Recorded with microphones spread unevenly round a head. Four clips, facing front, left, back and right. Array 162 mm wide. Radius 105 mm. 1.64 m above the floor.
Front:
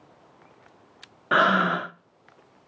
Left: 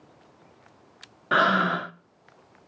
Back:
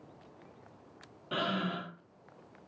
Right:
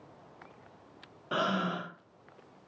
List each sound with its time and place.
1.3 s breathing: 25° left, 0.7 m